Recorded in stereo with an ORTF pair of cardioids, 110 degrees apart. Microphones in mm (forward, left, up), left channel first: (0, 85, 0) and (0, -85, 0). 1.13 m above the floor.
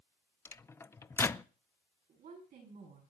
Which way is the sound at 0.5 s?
15° left.